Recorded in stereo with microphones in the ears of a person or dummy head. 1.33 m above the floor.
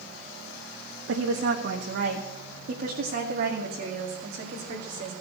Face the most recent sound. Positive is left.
turn(degrees=-45)  # may be behind; listen again after turning